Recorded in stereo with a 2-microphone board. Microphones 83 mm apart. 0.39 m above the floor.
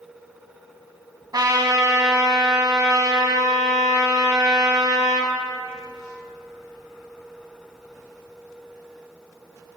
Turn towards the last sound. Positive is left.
turn(degrees=-55)  # may be behind; listen again after turning